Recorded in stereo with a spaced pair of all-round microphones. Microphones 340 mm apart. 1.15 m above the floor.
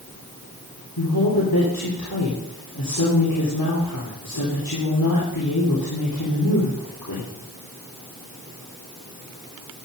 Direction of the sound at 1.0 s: 80° left.